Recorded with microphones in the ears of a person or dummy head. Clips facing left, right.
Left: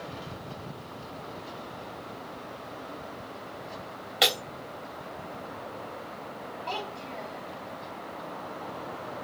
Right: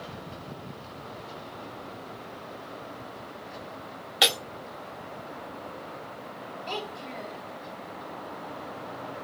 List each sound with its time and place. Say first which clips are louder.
4.2 s breaking glass: even; 10° right (ahead or behind), 1.5 m
6.7 s a child speaking: right 1 dB; 20° right (ahead or behind), 1.8 m